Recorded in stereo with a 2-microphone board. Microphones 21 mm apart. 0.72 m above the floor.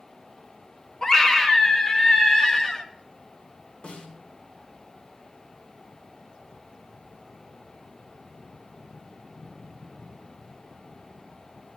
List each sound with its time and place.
1.0 s a scream: 30° left (ahead or behind), 1.1 m
3.8 s a snare drum: 65° left (ahead or behind), 3 m